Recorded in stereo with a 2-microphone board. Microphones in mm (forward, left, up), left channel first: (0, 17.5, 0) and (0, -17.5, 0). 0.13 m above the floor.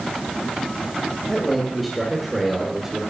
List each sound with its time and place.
1.3 s a man speaking: 10° left (ahead or behind), 2.5 m; by 3.0 s 20° right (ahead or behind), 2 m